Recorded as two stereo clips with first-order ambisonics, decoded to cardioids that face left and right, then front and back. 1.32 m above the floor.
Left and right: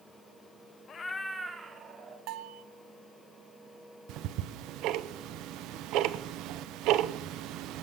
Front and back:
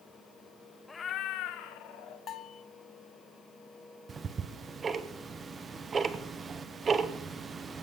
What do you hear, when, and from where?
0.9 s a cat meowing: 80° left, 0.6 m; by 2.2 s 20° right, 1.8 m
2.3 s a bell: 55° right, 0.6 m
4.1 s ticking: 115° right, 0.6 m